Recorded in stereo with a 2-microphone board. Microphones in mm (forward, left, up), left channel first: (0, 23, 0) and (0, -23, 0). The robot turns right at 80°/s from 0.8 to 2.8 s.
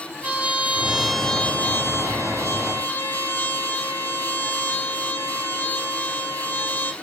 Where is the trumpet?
30° right, 0.6 m; by 6.9 s 130° left, 0.6 m.